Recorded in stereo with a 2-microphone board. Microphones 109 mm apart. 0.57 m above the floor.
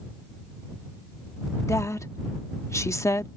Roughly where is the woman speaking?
Left.